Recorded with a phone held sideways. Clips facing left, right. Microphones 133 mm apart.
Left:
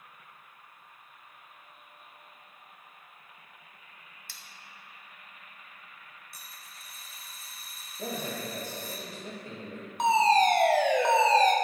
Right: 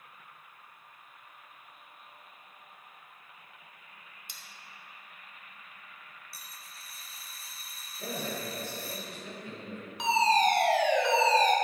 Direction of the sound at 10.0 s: 45° left (ahead or behind).